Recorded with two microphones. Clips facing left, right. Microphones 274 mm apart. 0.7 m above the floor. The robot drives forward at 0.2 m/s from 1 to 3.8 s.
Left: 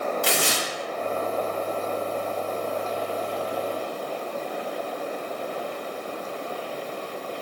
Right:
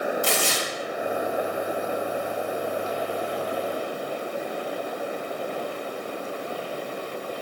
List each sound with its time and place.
0.2 s tearing paper: 80° left, 0.6 m